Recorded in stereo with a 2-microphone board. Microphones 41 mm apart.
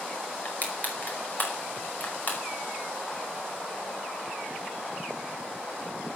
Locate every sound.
0.5 s crushing: 40° left (ahead or behind), 5 m